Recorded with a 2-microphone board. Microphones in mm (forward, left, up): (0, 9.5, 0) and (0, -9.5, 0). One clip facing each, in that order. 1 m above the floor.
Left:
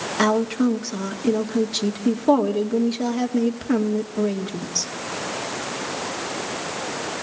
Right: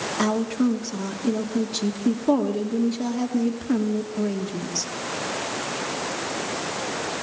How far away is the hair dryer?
No hair dryer in this recording.